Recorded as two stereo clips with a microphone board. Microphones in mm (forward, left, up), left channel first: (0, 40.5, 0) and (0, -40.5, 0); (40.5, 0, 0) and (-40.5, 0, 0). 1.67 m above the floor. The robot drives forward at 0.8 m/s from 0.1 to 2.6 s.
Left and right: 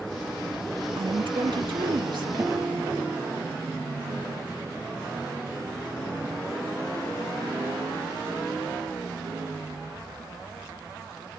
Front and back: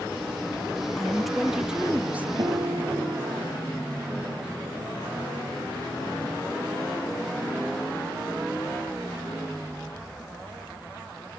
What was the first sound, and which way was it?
A woman speaking, 85° right.